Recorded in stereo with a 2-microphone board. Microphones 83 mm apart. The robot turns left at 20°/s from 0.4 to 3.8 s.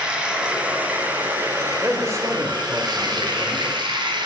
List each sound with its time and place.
0.0 s running water: 10° right, 2.5 m; by 4.3 s 80° right, 2.5 m
1.8 s a man speaking: 55° right, 1.1 m; by 3.7 s 90° right, 1.1 m